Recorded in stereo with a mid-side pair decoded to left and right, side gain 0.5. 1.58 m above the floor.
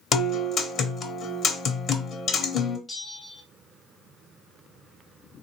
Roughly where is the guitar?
Ahead left.